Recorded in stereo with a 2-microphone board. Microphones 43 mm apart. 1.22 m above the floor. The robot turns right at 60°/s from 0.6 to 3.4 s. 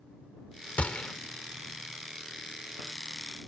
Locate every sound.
0.8 s a gunshot: 35° left (ahead or behind); by 1.1 s 20° left (ahead or behind)